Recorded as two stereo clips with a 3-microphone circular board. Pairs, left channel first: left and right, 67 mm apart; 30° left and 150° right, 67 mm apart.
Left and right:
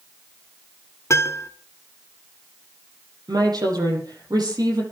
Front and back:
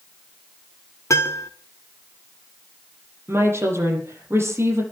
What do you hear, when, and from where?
1.1 s a piano: 55° left, 1.5 m
3.3 s a woman speaking: 100° right, 6.5 m